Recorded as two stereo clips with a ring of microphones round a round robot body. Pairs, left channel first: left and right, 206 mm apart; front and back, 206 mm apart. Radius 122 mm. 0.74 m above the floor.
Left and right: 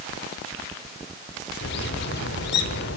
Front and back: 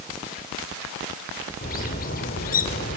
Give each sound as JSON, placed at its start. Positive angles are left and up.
{"t": 1.6, "sound": "a bird", "azimuth_deg": 50, "distance_m": 2.5}